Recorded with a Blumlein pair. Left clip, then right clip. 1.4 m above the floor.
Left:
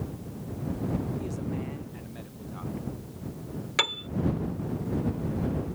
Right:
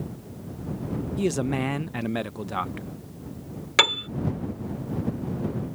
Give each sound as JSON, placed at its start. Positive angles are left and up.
{"t": 1.2, "sound": "a man speaking", "azimuth_deg": -40}
{"t": 3.8, "sound": "a piano", "azimuth_deg": -20}